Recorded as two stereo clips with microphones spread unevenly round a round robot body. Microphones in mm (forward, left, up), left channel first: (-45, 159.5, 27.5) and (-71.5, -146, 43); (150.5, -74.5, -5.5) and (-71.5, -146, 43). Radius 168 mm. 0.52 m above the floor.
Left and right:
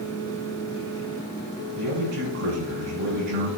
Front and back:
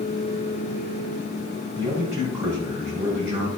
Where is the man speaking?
80° right, 3 m.